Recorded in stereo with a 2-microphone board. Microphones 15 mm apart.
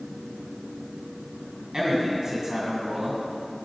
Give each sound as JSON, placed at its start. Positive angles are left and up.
{"t": 1.7, "sound": "a man speaking", "side_deg": -45, "distance_m": 2.0}